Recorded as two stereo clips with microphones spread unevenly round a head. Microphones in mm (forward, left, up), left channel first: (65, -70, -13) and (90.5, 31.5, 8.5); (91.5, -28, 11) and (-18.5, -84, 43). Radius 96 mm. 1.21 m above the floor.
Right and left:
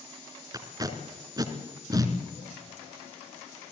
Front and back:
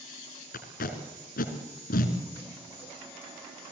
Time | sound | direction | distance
0.5 | tape being pulled | 35° left | 3 m